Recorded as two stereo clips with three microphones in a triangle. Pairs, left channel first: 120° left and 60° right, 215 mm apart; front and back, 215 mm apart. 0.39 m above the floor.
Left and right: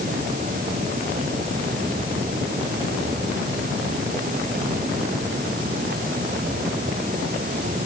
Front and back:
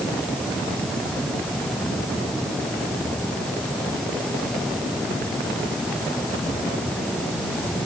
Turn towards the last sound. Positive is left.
No sound to turn to.